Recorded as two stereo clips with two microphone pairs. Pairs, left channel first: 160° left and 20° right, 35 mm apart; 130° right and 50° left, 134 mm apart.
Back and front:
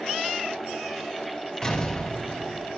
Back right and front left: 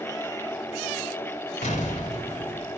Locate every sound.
1.6 s an explosion: 135° right, 2.5 m